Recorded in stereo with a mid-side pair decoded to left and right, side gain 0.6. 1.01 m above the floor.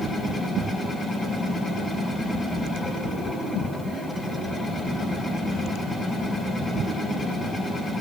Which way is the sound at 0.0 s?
30° left.